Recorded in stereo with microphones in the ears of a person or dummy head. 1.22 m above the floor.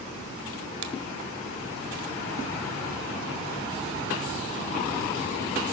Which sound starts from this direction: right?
A finger snap, at 0.8 s.